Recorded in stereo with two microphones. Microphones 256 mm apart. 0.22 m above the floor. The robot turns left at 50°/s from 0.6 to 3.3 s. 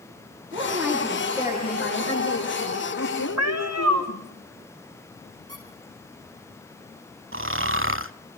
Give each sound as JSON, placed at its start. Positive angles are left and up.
{"t": 0.5, "sound": "a woman speaking", "azimuth_deg": -165, "distance_m": 9.0}
{"t": 3.4, "sound": "a cat meowing", "side_deg": -65, "distance_m": 3.0}
{"t": 5.5, "sound": "a squeak", "side_deg": -60, "distance_m": 4.5}
{"t": 7.3, "sound": "snoring", "side_deg": -50, "distance_m": 0.7}